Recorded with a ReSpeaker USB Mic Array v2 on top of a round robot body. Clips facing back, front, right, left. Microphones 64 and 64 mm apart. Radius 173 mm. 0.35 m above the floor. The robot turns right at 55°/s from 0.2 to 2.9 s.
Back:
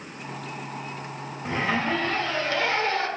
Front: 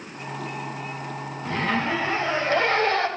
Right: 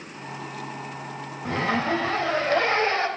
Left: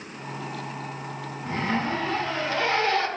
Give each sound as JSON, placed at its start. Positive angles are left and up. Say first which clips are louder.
{"t": 1.4, "sound": "a zipper", "louder": "front 1 dB, right 2 dB", "azimuth_deg": -110, "distance_m": 3.0}